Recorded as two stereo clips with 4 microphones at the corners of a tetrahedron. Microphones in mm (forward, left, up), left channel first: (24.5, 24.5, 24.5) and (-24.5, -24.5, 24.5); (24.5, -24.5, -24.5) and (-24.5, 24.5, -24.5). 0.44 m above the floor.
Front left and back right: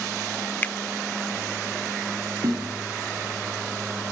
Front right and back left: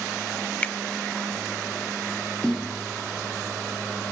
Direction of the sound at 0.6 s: 10° left.